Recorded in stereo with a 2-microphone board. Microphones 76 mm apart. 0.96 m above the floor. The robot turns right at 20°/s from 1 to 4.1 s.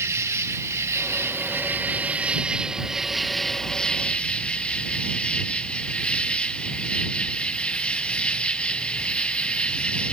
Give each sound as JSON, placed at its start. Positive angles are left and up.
{"t": 0.0, "sound": "an insect", "azimuth_deg": -45}